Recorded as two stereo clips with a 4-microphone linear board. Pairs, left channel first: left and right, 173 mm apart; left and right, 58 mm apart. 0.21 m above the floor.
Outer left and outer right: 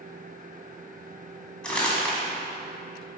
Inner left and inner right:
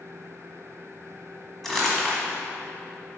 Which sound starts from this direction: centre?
Crumpling, at 1.6 s.